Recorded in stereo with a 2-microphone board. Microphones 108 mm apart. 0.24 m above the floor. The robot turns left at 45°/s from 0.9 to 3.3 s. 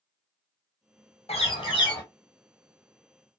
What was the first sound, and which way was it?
A bird, 70° left.